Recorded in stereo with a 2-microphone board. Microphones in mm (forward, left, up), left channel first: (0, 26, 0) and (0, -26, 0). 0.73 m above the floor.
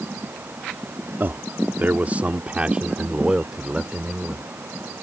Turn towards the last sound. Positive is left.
turn(degrees=-10)  # may be behind; listen again after turning